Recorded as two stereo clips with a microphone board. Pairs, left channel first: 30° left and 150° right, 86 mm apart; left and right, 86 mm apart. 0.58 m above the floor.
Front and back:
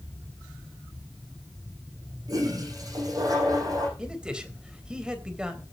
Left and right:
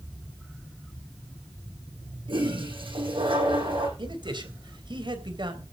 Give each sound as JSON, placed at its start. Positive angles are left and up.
{"t": 2.3, "sound": "a toilet flushing", "azimuth_deg": -105, "distance_m": 9.0}
{"t": 4.0, "sound": "a man speaking", "azimuth_deg": -70, "distance_m": 3.5}